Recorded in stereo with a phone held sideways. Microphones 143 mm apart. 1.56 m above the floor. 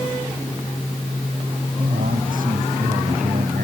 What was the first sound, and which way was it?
A man speaking, 75° right (ahead or behind).